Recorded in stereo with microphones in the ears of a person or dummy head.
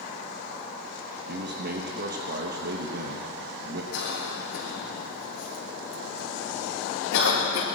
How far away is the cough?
About 3.5 m.